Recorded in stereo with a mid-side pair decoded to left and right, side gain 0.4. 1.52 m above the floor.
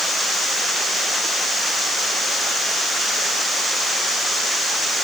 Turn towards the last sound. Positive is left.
No sound to turn to.